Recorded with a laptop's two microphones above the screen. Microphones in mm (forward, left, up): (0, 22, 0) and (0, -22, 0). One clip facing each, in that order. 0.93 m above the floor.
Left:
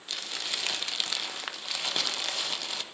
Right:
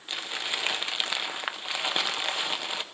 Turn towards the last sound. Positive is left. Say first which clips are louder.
# right 3 dB
turn(degrees=-25)  # may be behind; listen again after turning